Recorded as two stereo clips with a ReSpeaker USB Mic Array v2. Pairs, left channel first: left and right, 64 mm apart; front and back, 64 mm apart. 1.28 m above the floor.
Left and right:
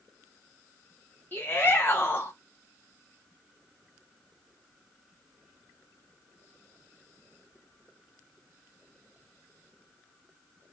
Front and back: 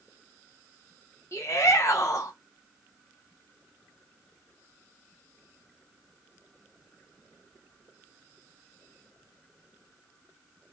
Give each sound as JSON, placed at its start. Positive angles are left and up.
{"t": 1.3, "sound": "a shout", "azimuth_deg": 35, "distance_m": 0.6}